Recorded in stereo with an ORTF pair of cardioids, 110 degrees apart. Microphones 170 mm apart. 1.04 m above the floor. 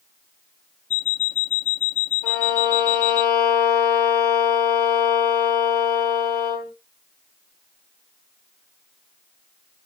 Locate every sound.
0.9 s an alarm clock: 45° left, 0.9 m
2.2 s a violin: 60° left, 1.5 m